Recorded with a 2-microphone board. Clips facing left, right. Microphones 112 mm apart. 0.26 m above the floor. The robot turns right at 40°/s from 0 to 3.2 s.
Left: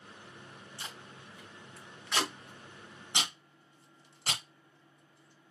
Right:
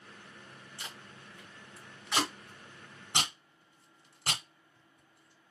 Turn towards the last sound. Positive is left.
turn(degrees=-45)  # may be behind; listen again after turning